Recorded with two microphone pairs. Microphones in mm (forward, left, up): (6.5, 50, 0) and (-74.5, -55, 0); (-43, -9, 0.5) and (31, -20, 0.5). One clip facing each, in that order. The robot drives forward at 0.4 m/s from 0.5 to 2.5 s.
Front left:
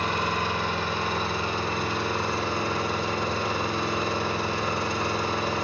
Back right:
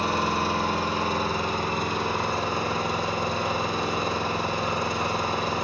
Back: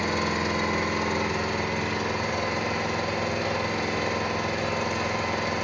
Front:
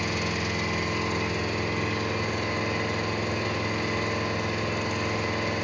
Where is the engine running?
160° right, 0.8 m; by 5.6 s 170° right, 1.5 m.